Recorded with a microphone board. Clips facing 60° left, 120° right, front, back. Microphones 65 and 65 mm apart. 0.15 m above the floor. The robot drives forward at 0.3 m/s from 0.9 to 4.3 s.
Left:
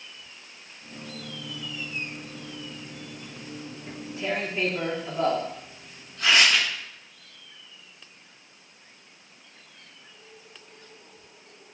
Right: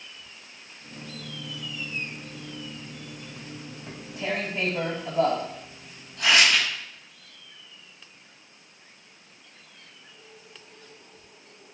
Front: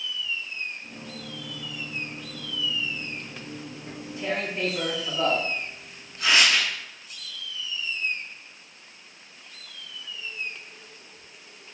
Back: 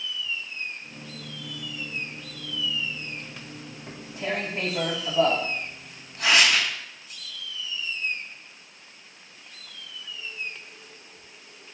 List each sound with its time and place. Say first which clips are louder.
3.9 s tearing paper: even, even; 150° right, 2 m